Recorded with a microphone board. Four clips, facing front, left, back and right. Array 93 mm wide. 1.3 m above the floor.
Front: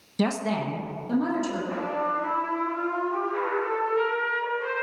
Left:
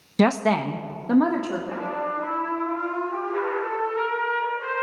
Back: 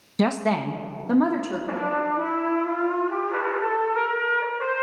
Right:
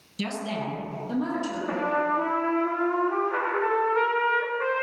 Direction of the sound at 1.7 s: 140° right.